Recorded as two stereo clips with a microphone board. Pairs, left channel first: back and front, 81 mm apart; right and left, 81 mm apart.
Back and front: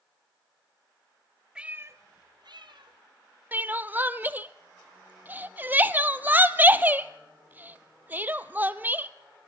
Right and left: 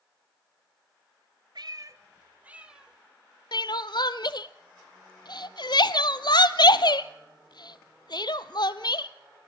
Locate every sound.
1.6 s a cat meowing: 80° left, 0.8 m; by 3.0 s 10° left, 1.9 m
3.5 s crying: 65° right, 0.6 m